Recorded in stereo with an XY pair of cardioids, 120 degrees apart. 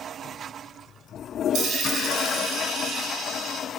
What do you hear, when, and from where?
1.5 s a dropped coin: 65° right, 2 m